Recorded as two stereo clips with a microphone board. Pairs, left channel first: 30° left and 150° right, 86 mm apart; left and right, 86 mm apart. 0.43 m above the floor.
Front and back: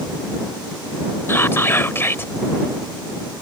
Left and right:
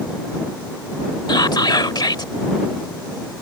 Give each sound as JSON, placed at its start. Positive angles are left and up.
{"t": 1.3, "sound": "whispering", "azimuth_deg": 85}